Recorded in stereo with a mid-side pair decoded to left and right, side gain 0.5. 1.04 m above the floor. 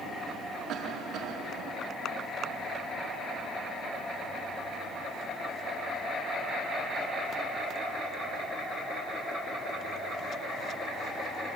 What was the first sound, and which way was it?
A cough, 70° right.